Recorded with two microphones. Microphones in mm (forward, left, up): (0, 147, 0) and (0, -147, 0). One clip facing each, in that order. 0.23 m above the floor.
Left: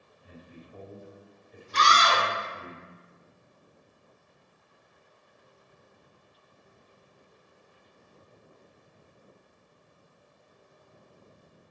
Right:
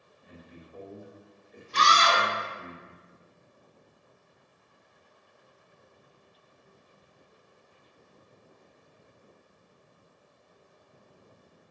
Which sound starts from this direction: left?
A man speaking, at 0.2 s.